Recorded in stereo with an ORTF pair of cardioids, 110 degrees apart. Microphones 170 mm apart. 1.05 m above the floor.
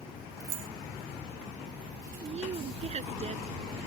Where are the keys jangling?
65° right.